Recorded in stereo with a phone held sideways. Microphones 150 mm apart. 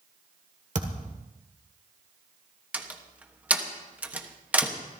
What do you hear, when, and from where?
0.8 s a thud: 55° right (ahead or behind), 1.8 m
2.7 s a door slam: 10° right (ahead or behind), 1.1 m